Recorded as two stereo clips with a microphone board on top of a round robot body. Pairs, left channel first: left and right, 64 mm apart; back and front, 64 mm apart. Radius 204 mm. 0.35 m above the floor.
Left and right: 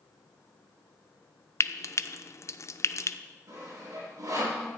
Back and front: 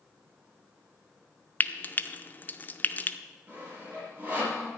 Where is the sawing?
65° right, 6 m.